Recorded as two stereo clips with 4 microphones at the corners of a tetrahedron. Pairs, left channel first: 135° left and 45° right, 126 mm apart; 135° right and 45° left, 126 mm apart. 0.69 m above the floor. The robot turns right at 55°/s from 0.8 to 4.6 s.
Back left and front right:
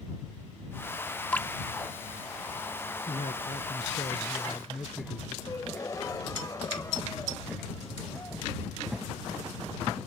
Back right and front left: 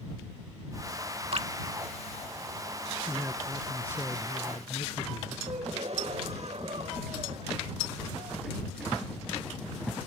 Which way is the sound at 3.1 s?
105° left.